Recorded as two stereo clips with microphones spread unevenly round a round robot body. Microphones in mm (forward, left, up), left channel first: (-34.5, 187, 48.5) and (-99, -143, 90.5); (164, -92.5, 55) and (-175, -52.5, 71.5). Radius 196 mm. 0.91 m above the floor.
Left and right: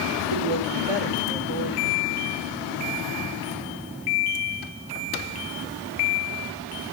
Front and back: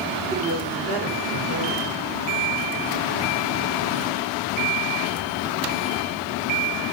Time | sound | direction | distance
0.3 | a woman speaking | 115° right | 4 m